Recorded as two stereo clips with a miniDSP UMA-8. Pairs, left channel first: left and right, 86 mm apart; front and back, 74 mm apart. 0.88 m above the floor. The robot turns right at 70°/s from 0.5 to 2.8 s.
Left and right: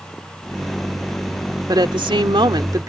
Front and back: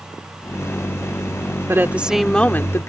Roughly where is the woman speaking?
Behind right.